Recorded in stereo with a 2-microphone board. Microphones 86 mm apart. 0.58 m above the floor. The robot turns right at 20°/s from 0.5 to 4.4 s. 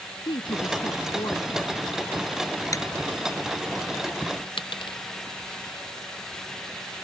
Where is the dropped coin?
75° left (ahead or behind).